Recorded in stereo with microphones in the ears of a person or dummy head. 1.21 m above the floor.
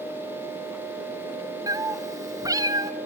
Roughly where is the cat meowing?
Centre.